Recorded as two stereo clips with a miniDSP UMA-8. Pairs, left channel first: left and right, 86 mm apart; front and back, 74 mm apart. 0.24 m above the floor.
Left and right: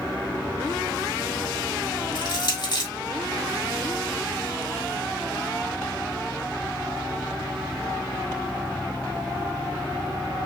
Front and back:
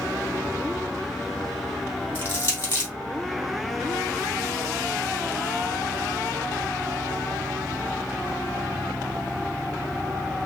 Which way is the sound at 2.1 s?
60° left.